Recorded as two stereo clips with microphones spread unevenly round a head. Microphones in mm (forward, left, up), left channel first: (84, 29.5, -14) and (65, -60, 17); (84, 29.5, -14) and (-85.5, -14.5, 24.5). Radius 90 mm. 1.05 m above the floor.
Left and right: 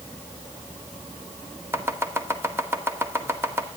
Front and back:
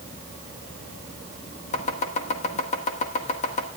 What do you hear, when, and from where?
1.7 s chopping: 35° right, 1.7 m